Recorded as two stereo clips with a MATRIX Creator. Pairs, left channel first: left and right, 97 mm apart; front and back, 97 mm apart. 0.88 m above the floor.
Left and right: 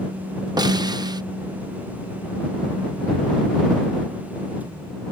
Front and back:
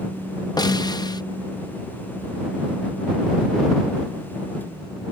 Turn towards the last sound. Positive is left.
turn(degrees=-45)